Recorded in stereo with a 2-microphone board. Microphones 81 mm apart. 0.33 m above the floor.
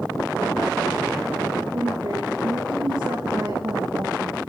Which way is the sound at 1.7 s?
50° right (ahead or behind).